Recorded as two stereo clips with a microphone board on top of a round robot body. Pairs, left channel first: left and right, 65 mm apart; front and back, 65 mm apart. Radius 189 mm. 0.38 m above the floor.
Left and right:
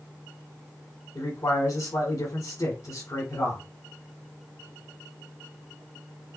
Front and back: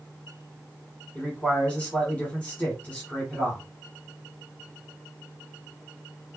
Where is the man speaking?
75° left, 3 m.